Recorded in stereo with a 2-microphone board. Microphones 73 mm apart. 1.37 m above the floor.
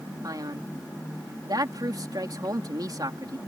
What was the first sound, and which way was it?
A man speaking, 60° right (ahead or behind).